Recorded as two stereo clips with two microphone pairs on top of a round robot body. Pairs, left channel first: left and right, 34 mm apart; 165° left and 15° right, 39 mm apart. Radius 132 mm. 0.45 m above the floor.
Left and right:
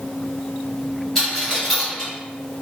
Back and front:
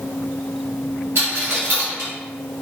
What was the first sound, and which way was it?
A dropped coin, 10° left.